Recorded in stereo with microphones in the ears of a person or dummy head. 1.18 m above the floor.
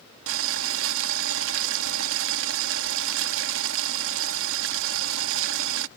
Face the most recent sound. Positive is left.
turn(degrees=-80)